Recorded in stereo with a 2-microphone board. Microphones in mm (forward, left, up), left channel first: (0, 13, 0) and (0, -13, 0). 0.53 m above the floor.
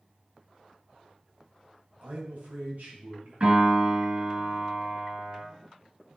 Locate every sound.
2.0 s a man speaking: 75° right (ahead or behind), 3 m
3.4 s a piano: 40° right (ahead or behind), 4 m